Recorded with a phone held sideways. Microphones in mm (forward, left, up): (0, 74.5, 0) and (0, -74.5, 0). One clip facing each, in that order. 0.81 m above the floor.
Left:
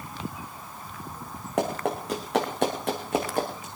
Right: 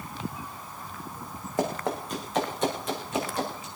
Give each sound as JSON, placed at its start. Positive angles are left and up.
{"t": 1.6, "sound": "running footsteps", "side_deg": 80, "distance_m": 4.5}